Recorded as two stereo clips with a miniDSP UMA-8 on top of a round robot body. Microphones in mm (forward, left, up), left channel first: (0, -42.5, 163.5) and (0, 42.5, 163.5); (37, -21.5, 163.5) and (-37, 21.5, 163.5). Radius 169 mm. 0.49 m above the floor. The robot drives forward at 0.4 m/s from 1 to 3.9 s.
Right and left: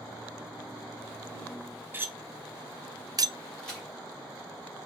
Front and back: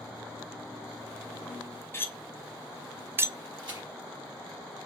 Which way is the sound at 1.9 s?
30° left.